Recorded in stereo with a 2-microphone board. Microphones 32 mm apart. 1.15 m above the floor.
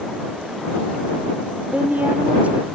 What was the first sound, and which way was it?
A woman speaking, 60° right (ahead or behind).